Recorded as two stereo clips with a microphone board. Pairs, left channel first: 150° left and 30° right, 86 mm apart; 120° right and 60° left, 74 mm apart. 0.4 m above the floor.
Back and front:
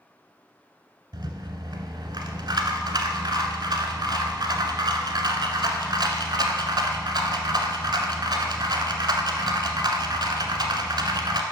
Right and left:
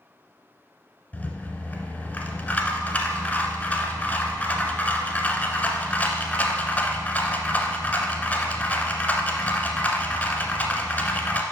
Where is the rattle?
55° right, 0.8 m.